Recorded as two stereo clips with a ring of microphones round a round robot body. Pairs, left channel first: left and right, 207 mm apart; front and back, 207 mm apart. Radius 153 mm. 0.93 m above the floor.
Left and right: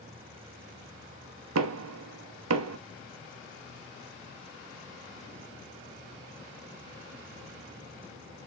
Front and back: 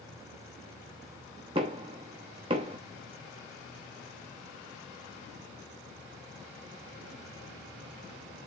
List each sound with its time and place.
1.6 s knocking: 105° right, 0.8 m